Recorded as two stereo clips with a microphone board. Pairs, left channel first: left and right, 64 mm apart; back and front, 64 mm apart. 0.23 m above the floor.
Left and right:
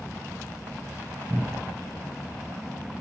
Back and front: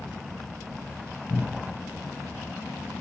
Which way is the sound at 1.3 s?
140° right.